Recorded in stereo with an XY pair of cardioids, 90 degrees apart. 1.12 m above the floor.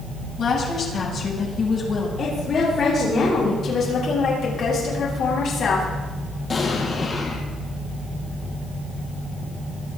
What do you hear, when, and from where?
0.4 s a woman speaking: 70° left, 7 m; by 2.1 s 50° left, 7.5 m
2.2 s a woman speaking: 55° left, 9 m
3.6 s a woman speaking: 65° left, 9 m
6.5 s an explosion: 50° left, 5.5 m